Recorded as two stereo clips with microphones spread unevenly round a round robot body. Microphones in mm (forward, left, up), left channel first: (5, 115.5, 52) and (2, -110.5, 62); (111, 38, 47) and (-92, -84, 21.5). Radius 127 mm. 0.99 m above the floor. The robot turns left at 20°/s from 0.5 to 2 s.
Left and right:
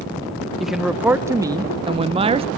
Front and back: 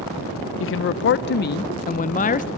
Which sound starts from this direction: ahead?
A man speaking, at 0.6 s.